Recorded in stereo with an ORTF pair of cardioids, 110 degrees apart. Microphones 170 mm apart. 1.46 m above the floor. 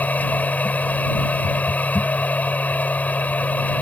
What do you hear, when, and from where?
0.0 s a machine running: 10° left